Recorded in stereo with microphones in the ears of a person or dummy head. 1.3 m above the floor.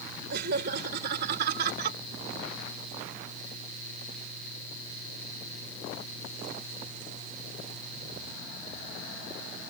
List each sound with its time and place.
0.3 s laughter: 55° right (ahead or behind); by 2.0 s 50° right (ahead or behind)